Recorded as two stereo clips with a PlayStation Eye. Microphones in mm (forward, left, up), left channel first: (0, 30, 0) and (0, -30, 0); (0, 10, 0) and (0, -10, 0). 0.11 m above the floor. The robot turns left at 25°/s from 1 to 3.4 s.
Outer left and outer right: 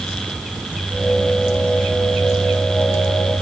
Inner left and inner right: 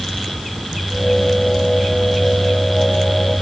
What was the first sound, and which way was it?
Only background noise.